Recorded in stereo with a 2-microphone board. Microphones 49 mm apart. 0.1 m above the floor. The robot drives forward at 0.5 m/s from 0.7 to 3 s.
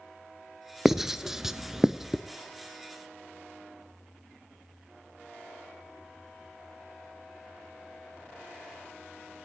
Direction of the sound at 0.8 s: 5° right (ahead or behind).